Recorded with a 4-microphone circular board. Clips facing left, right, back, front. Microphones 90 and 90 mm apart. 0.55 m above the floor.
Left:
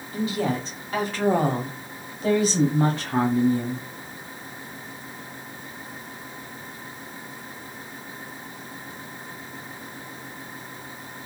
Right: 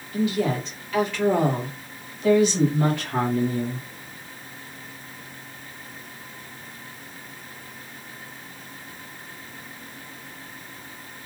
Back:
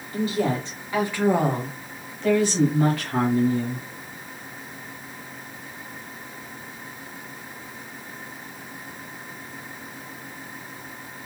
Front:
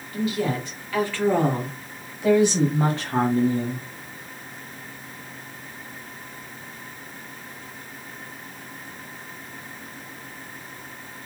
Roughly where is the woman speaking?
Behind left.